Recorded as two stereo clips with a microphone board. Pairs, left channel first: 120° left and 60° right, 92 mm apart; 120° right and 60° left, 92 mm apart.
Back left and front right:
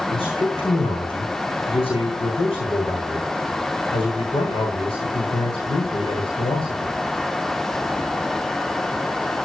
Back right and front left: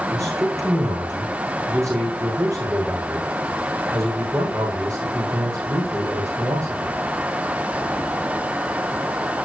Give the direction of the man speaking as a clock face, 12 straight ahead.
8 o'clock.